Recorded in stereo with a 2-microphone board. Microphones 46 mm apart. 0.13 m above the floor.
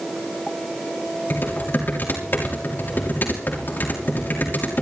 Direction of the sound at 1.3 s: 50° left (ahead or behind).